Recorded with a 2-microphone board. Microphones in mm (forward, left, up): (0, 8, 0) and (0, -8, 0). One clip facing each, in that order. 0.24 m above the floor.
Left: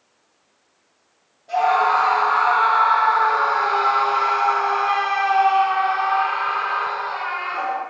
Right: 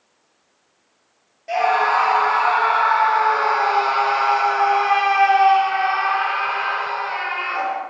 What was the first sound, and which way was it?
A scream, 70° right (ahead or behind).